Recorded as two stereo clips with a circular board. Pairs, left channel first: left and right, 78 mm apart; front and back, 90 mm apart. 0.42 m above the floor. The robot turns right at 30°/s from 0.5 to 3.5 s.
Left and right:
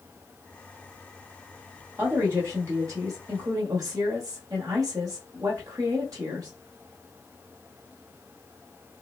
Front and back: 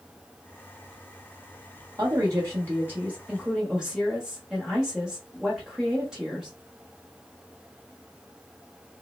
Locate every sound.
2.0 s a woman speaking: 145° right, 1.1 m; by 6.5 s 100° right, 1.1 m